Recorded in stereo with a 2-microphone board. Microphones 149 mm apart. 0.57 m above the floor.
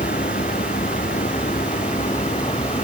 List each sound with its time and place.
0.0 s a vehicle: 75° left (ahead or behind); by 2.9 s 45° left (ahead or behind)